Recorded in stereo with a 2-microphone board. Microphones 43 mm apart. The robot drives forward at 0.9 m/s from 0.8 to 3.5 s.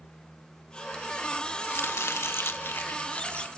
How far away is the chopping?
About 1.1 m.